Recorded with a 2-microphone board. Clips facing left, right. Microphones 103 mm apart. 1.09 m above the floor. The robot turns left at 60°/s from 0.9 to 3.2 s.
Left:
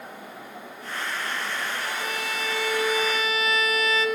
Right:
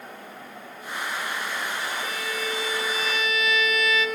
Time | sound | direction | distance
1.8 | a violin | 120° left | 1.3 m